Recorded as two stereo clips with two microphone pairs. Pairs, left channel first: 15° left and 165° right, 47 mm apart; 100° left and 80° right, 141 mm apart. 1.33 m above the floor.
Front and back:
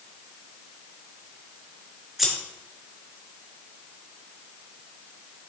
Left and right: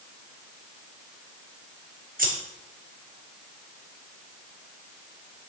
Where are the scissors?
75° right, 1.8 m.